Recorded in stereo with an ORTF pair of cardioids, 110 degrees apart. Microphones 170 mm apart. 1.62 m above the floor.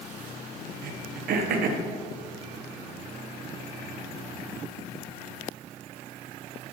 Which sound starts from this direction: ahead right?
Throat clearing, at 0.8 s.